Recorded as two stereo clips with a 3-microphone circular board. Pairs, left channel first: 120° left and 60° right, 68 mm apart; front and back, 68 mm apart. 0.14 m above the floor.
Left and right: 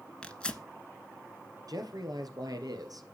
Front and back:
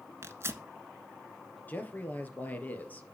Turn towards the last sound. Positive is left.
turn(degrees=-60)